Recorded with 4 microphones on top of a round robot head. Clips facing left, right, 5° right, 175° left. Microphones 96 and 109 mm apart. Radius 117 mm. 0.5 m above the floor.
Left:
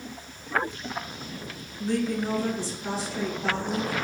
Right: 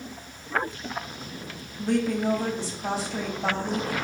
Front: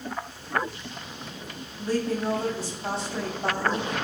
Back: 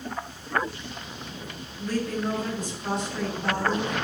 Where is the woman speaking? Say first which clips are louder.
Right 2 dB, front 2 dB; 65° right, 3.5 m.